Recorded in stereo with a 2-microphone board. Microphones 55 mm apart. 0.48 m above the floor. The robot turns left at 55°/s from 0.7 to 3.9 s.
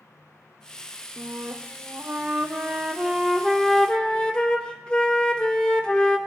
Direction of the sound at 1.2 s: 55° right.